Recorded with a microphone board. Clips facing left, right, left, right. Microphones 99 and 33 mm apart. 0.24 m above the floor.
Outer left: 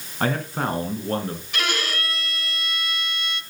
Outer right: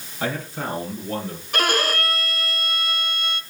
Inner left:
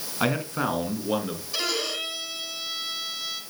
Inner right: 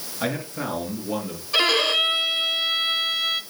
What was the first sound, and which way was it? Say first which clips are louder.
A man speaking: outer left 3 dB, inner left 2 dB; 55° left (ahead or behind).